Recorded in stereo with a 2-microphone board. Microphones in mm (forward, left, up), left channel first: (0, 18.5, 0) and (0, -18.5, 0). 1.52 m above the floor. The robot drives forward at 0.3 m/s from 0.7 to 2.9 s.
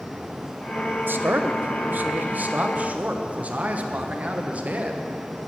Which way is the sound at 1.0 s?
65° right (ahead or behind).